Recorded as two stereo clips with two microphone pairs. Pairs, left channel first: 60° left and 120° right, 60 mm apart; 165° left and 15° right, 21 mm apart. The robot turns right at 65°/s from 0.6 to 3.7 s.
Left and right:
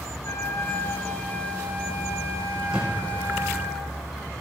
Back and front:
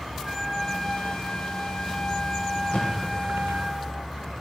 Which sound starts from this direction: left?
A trumpet, at 0.2 s.